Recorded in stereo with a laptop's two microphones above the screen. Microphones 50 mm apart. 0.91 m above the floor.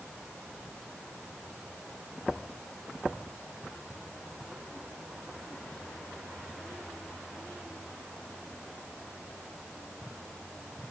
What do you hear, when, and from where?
Only background noise.